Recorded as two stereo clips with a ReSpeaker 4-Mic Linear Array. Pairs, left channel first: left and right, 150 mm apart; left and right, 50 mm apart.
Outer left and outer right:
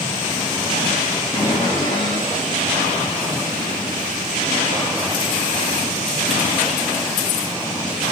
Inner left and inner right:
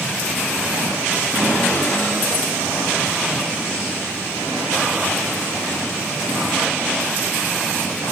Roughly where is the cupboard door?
Left.